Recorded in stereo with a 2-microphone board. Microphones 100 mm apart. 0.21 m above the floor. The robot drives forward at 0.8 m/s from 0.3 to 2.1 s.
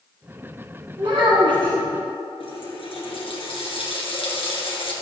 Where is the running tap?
70° left (ahead or behind), 2.5 m.